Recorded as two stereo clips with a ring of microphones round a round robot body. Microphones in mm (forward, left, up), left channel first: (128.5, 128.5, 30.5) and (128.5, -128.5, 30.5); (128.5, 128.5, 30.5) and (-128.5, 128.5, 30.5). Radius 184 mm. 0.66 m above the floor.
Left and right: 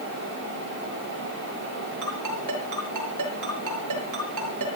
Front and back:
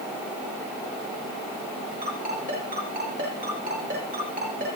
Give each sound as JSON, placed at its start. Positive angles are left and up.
{"t": 2.0, "sound": "a ringtone", "azimuth_deg": -110, "distance_m": 6.5}